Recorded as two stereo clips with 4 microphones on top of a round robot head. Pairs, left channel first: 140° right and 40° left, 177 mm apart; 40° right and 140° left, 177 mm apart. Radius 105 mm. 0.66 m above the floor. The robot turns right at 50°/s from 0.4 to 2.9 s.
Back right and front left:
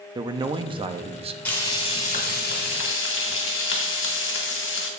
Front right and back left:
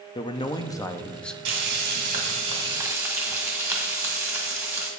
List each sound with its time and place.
0.1 s a man speaking: 5° right, 0.5 m; by 1.4 s 45° left, 0.5 m
1.4 s frying: 140° left, 1.7 m; by 4.9 s 145° right, 1.7 m